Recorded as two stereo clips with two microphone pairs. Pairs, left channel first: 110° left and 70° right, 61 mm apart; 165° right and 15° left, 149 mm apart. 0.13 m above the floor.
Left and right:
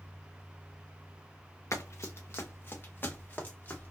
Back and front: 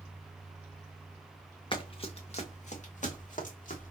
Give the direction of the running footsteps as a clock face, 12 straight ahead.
7 o'clock.